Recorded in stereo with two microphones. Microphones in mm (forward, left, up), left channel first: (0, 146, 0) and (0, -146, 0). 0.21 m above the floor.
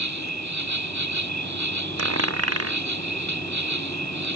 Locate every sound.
0.0 s an insect: 75° right (ahead or behind)
2.0 s a dropped coin: 55° right (ahead or behind)